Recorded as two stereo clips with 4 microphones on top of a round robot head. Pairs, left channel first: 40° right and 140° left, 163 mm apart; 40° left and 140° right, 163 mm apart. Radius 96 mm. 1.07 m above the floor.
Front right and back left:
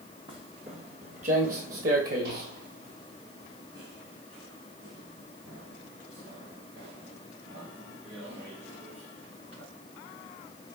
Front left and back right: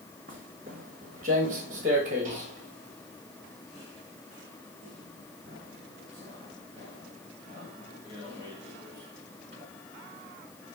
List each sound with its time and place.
0.3 s footsteps: 165° right, 1.4 m; by 9.6 s 165° left, 6.5 m